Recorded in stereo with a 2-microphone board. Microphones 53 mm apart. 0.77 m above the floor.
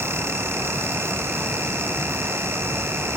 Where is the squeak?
No squeak in this recording.